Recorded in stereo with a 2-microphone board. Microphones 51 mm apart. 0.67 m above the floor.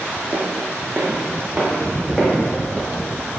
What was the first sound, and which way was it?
Footsteps, 40° right (ahead or behind).